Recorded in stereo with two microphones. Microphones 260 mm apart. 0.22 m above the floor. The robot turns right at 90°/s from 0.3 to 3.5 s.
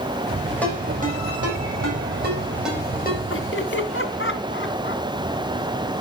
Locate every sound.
0.6 s a ringtone: 5° left (ahead or behind), 7 m; by 3.2 s 45° left (ahead or behind), 7 m
3.3 s laughter: 55° left (ahead or behind), 2 m; by 5.0 s 45° left (ahead or behind), 2 m